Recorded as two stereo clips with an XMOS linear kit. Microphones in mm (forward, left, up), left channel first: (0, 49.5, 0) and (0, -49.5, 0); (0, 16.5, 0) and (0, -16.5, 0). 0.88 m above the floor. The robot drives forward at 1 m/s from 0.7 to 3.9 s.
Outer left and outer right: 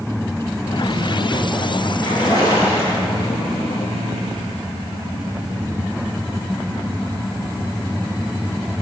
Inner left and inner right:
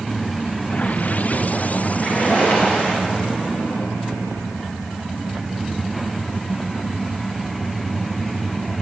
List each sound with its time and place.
2.0 s a splash: 45° left (ahead or behind), 5.5 m; by 3.4 s 35° left (ahead or behind), 6.5 m